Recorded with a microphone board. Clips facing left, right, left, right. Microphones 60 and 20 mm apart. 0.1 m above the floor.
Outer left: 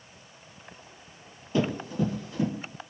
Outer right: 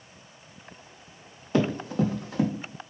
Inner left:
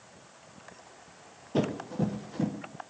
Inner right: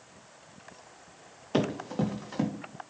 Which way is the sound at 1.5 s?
70° right (ahead or behind).